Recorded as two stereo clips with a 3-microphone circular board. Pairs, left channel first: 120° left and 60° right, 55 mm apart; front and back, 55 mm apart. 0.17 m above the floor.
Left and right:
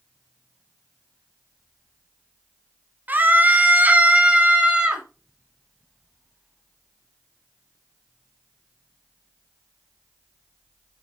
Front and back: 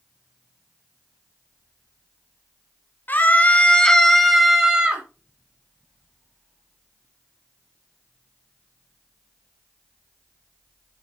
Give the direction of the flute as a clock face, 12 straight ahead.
I don't hear a flute.